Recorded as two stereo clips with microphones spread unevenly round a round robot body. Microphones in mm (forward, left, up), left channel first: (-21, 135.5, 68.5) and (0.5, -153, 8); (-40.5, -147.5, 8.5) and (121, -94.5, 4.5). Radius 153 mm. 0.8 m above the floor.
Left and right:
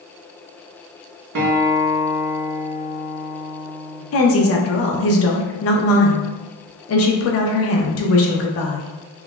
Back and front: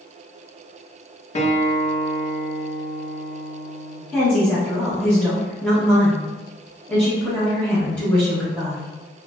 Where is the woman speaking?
120° left, 0.6 m.